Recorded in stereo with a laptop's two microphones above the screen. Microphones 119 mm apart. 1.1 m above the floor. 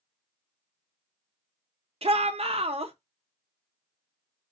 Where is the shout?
55° right (ahead or behind), 0.7 m.